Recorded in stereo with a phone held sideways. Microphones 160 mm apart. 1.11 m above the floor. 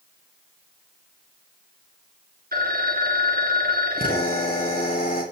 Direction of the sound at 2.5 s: 75° right (ahead or behind).